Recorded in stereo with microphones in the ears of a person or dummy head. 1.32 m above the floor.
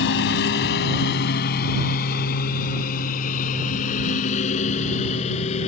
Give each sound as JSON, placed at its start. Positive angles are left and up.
{"t": 0.0, "sound": "a lawn mower", "side_deg": 65}